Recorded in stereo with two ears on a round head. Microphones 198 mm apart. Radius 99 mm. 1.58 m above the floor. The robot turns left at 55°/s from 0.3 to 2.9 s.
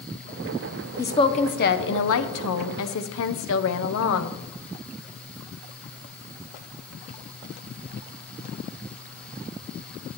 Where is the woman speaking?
170° left, 0.9 m; by 4.4 s 65° left, 0.9 m.